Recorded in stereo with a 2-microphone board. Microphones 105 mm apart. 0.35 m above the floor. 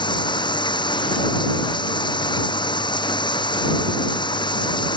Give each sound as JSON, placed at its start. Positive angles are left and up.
{"t": 0.0, "sound": "running water", "side_deg": 45}